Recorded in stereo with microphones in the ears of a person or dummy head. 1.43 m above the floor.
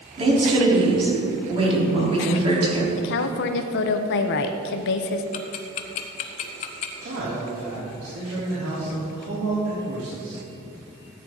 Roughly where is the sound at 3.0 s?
Left.